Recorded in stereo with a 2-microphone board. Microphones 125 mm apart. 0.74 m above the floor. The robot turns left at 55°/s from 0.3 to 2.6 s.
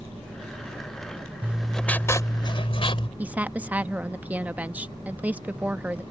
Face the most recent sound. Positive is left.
turn(degrees=-15)  # may be behind; listen again after turning